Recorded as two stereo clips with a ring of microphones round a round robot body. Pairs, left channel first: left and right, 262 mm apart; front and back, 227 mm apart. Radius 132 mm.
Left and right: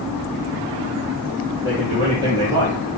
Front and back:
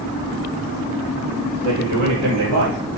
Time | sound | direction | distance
1.6 | a man speaking | 170° right | 6 m